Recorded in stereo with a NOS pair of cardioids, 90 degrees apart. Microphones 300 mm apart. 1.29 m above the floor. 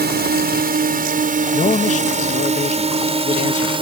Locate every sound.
0.0 s a drone: 35° right; by 3.8 s 20° right
1.5 s a man speaking: 25° left